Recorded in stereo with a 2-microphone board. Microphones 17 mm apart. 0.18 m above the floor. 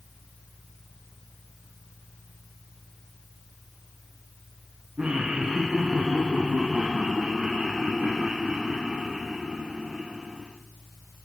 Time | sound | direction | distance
5.0 | laughter | 80° right | 8 m